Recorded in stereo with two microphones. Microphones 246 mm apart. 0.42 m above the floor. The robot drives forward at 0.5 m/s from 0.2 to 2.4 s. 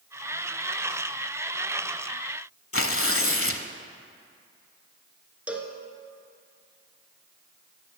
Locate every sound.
2.7 s tearing paper: 60° left (ahead or behind), 0.8 m
5.5 s a cowbell: 5° right (ahead or behind), 1.1 m